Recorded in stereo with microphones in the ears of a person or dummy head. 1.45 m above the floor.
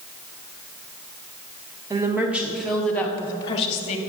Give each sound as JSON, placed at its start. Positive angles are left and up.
{"t": 1.9, "sound": "a woman speaking", "side_deg": -20, "distance_m": 1.2}